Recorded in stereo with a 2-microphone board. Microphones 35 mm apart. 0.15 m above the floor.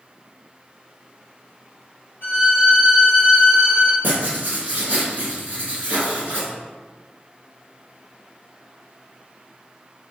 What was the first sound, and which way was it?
A violin, 70° left (ahead or behind).